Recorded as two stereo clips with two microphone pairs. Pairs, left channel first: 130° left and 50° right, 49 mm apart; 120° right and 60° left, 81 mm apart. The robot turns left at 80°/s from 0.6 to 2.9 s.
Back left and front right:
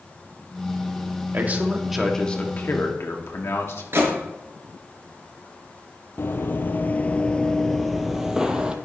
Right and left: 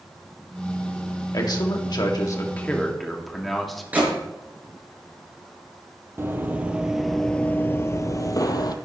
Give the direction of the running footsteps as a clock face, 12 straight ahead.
8 o'clock.